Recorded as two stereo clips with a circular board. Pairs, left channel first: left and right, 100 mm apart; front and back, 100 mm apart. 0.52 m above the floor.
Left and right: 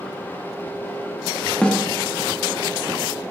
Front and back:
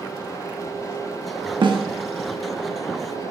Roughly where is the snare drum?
Behind.